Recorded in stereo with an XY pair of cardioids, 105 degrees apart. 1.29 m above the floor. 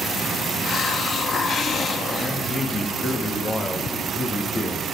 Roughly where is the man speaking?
Ahead left.